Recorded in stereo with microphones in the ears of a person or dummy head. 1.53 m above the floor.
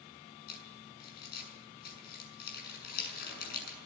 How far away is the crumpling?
About 7.5 m.